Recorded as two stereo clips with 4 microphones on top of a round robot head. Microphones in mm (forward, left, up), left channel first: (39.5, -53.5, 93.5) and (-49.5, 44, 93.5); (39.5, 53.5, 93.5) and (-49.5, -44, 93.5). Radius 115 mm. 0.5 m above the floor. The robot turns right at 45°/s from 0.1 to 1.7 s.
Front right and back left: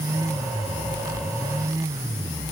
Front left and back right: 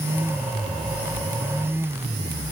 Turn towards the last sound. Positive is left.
No sound to turn to.